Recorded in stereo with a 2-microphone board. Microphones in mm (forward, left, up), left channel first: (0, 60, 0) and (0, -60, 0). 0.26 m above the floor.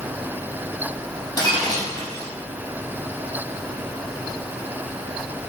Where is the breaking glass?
35° left (ahead or behind), 5.5 m.